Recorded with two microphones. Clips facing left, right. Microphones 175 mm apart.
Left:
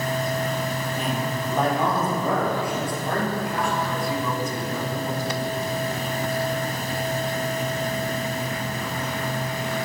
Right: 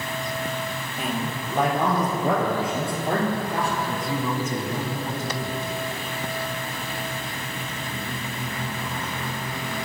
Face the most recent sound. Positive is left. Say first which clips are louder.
# left 1 dB
turn(degrees=-25)  # may be behind; listen again after turning